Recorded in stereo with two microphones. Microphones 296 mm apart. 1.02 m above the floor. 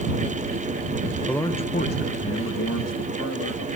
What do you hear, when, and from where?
1.3 s a man speaking: centre (ahead or behind); by 3.7 s 70° left (ahead or behind)